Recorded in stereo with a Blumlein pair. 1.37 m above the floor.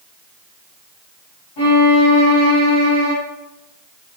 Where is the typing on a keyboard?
No typing on a keyboard in this recording.